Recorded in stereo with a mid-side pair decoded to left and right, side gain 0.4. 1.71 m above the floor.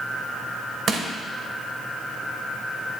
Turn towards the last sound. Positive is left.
turn(degrees=-50)